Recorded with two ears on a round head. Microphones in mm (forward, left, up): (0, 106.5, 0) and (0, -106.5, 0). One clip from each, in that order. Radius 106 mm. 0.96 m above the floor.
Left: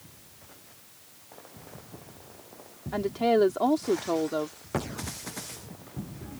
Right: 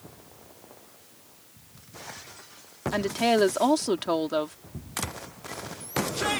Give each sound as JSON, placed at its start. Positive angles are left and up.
{"t": 2.9, "sound": "a woman speaking", "side_deg": -65}